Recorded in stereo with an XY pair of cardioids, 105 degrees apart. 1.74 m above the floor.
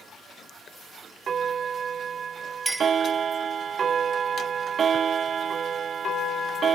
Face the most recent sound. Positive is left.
turn(degrees=-5)